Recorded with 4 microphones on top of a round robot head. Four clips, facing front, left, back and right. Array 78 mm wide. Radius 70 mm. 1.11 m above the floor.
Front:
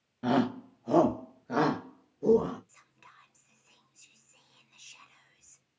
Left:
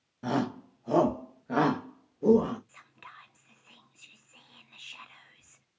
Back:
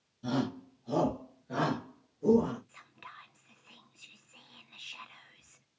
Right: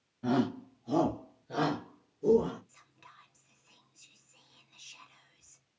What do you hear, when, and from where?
0.2 s a shout: 25° left, 1.3 m; by 2.6 s 75° left, 1.9 m
2.7 s whispering: 130° left, 0.6 m